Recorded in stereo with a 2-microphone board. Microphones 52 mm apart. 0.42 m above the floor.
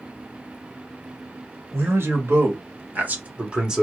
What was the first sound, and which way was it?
A man speaking, 55° right (ahead or behind).